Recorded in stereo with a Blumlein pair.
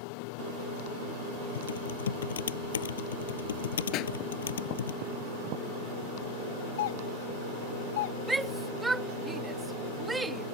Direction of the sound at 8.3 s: 10° right.